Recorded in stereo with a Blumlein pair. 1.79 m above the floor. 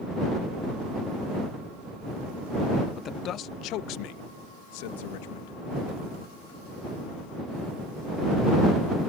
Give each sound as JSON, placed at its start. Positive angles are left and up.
{"t": 3.0, "sound": "a man speaking", "azimuth_deg": 25}